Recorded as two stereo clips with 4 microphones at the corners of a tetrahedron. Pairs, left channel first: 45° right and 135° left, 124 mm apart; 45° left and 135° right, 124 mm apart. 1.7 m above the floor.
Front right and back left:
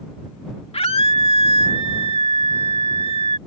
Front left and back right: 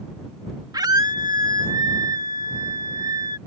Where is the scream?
80° right.